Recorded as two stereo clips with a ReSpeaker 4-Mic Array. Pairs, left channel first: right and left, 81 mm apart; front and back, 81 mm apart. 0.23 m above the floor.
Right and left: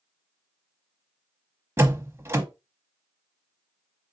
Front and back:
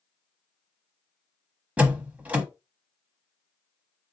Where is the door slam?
120° left, 0.8 m.